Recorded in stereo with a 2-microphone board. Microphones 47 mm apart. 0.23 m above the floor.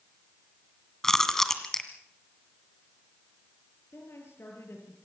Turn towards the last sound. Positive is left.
turn(degrees=60)  # may be behind; listen again after turning